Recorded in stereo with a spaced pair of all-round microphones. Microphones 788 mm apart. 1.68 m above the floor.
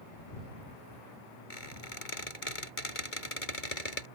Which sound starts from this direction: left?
A squeak, at 1.5 s.